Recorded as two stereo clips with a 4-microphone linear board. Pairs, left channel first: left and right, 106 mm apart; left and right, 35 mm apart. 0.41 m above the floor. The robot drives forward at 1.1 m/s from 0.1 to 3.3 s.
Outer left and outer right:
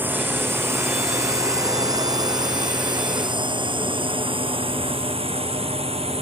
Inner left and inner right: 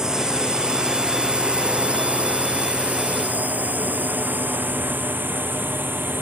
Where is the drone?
20° right (ahead or behind); by 6.2 s 70° right (ahead or behind).